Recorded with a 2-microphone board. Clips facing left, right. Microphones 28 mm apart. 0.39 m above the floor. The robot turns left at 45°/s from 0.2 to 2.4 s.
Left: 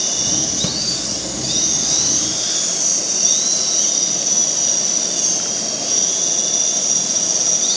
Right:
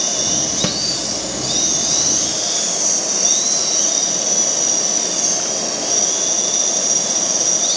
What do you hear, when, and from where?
0.6 s a snare drum: 30° right (ahead or behind), 1.0 m; by 0.8 s 35° right (ahead or behind), 1.0 m